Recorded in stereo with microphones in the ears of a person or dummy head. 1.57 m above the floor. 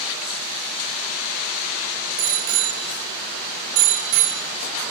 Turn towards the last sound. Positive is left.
turn(degrees=-40)  # may be behind; listen again after turning